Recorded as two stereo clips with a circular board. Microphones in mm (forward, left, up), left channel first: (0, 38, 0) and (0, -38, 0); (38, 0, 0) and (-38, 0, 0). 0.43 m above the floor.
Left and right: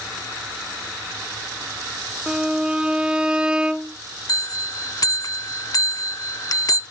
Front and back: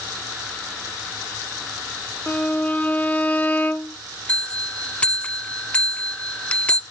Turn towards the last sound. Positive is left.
turn(degrees=70)